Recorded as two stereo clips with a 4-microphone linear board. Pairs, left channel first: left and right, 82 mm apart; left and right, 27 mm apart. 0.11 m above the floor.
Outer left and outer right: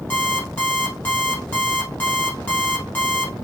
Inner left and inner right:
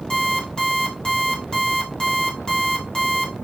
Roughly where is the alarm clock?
Left.